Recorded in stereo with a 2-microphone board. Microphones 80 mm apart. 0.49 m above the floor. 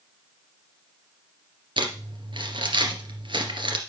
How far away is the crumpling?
About 2.5 m.